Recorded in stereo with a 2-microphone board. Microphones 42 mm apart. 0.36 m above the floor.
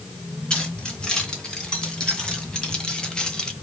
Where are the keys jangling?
25° left (ahead or behind), 3 m; by 3.5 s 20° left (ahead or behind), 1.0 m.